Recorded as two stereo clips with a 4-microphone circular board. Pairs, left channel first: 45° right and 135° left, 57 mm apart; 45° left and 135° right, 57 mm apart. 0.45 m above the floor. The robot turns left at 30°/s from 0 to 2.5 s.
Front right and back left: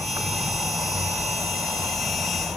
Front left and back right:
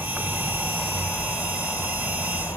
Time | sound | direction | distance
0.0 | an insect | 150° left | 4 m